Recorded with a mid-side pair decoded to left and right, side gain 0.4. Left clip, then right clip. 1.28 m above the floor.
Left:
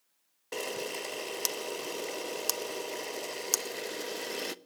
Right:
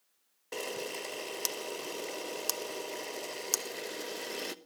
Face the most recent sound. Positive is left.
turn(degrees=20)